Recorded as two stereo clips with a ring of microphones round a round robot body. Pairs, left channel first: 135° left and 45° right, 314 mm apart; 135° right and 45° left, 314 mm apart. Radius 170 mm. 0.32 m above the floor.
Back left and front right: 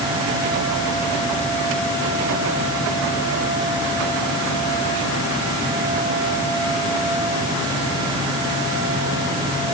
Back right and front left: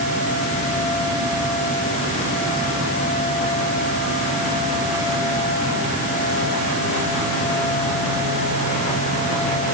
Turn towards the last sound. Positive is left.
No sound to turn to.